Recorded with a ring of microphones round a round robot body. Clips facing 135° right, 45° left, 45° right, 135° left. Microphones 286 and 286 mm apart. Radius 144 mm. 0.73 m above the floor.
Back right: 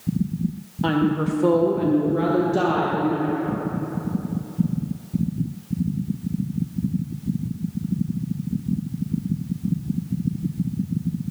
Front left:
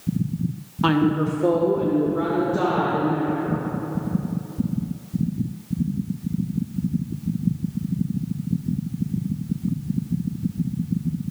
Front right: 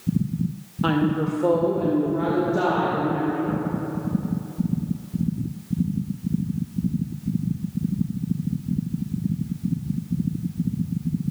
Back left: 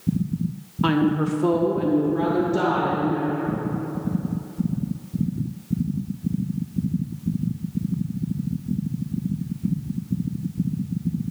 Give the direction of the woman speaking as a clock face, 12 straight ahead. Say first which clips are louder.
Front left 1 dB, back left 2 dB; 9 o'clock.